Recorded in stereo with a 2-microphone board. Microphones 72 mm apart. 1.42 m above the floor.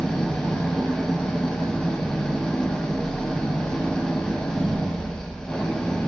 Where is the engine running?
10° left (ahead or behind), 0.9 m.